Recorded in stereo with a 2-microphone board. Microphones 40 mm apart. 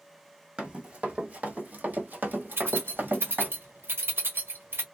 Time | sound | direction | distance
0.6 | running footsteps | 25° right (ahead or behind) | 1.7 m
2.5 | keys jangling | 75° right (ahead or behind) | 1.2 m